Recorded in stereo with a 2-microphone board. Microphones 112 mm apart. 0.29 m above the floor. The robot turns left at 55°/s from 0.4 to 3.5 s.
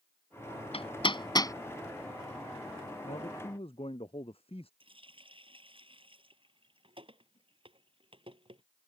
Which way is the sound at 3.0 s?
85° left.